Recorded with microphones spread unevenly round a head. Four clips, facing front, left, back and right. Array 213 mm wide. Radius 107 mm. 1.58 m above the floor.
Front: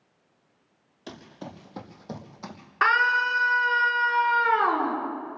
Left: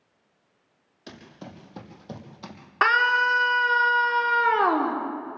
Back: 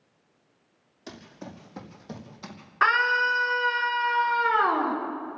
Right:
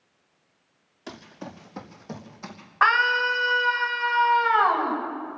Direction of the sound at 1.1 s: 25° right.